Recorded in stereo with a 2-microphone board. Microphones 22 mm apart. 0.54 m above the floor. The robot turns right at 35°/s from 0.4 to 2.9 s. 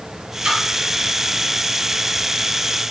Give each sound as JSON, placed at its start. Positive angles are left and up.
{"t": 0.4, "sound": "a splash", "side_deg": -45, "distance_m": 1.2}